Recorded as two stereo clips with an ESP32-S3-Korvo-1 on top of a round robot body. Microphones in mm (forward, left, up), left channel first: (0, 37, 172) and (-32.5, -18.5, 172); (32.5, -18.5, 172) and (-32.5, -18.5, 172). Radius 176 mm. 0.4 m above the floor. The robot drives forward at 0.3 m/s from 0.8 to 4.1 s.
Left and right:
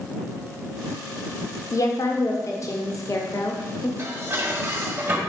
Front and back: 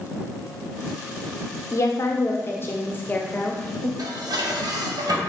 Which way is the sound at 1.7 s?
40° left.